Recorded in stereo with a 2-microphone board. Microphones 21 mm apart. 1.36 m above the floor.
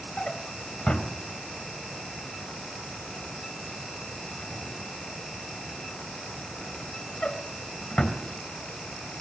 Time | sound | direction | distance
0.2 | a drawer | 45° left (ahead or behind) | 2.5 m